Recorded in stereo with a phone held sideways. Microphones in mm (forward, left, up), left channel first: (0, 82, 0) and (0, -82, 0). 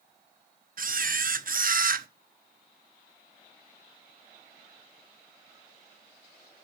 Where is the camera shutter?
60° right (ahead or behind), 0.7 m.